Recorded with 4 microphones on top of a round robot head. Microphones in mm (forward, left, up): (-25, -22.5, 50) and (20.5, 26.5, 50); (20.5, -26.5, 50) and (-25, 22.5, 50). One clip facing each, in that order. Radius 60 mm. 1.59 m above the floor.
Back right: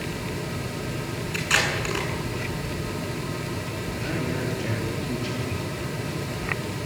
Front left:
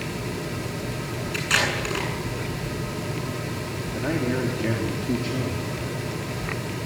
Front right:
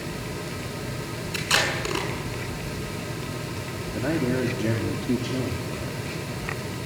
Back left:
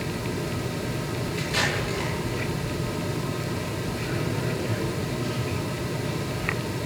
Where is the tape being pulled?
45° right, 8.5 m.